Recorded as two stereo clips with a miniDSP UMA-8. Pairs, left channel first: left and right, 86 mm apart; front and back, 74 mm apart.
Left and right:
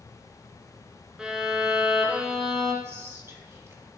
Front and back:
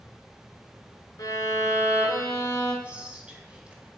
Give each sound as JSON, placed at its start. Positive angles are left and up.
{"t": 1.2, "sound": "a violin", "azimuth_deg": -10, "distance_m": 2.0}
{"t": 2.8, "sound": "whispering", "azimuth_deg": -120, "distance_m": 1.6}